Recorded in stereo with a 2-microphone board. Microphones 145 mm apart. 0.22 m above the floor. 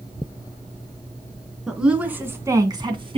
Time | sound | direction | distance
1.7 | a woman speaking | 5° right (ahead or behind) | 2.5 m